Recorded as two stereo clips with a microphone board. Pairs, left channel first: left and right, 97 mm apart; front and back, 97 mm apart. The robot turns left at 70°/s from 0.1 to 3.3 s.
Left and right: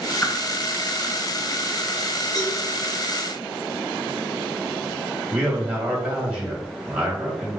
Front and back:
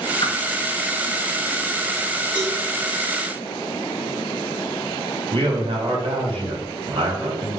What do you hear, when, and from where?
0.2 s a whoosh: 25° left, 0.8 m; by 0.3 s 15° left, 0.8 m
2.4 s a cowbell: 140° left, 1.7 m; by 2.6 s 125° left, 1.7 m
5.3 s a man speaking: 160° right, 2 m